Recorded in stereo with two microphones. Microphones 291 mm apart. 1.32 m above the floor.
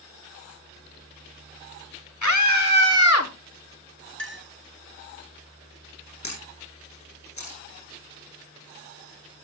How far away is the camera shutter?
About 9.5 m.